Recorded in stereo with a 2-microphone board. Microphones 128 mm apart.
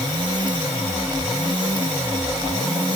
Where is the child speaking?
No child speaking in this recording.